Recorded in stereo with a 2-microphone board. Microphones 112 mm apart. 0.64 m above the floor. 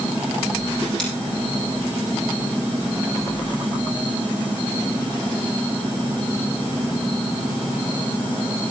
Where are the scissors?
5° left (ahead or behind), 6 m.